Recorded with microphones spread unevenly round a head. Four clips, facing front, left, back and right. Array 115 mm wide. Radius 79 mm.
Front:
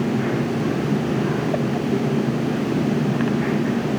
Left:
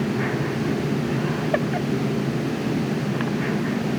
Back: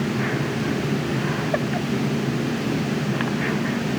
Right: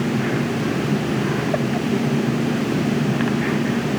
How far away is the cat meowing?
I don't hear a cat meowing.